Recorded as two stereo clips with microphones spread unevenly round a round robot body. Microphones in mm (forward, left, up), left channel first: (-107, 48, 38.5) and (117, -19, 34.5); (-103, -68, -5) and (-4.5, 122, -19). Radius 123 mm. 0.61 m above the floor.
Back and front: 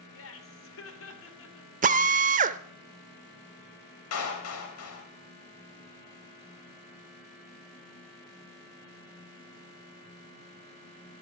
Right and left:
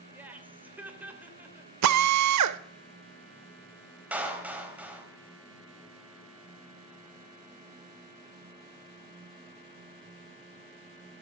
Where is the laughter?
145° left, 3 m.